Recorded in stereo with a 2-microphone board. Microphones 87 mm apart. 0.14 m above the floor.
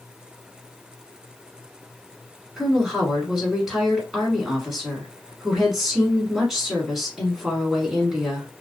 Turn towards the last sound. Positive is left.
turn(degrees=-5)  # may be behind; listen again after turning